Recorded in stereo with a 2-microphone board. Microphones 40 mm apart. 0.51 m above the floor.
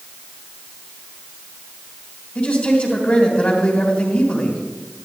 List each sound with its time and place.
2.4 s a man speaking: 35° left (ahead or behind), 2.5 m